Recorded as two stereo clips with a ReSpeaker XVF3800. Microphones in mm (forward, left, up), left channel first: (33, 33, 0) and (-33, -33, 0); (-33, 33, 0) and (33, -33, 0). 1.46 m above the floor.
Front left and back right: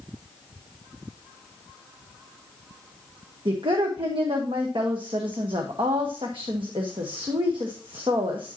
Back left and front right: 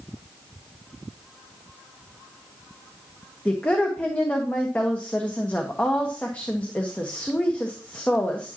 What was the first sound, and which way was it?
A woman speaking, 150° right.